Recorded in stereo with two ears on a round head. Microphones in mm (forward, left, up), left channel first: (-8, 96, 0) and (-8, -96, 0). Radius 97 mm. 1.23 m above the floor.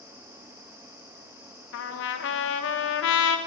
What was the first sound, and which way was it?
A trumpet, 60° left (ahead or behind).